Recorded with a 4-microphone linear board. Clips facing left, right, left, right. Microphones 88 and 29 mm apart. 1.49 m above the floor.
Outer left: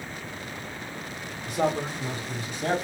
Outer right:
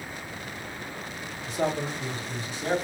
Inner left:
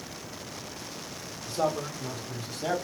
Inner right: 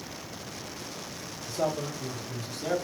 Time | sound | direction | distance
1.4 | a man speaking | 55° left (ahead or behind) | 1.0 m